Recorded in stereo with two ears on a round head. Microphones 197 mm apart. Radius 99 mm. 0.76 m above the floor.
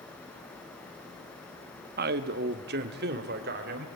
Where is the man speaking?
45° right (ahead or behind), 1.0 m; by 3.9 s 50° right (ahead or behind), 3 m.